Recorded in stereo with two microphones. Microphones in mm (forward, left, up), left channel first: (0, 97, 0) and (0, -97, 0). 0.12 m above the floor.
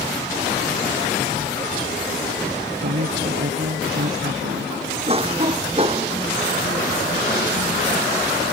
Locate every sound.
2.8 s a woman speaking: 65° right (ahead or behind)
5.1 s a cough: 30° right (ahead or behind)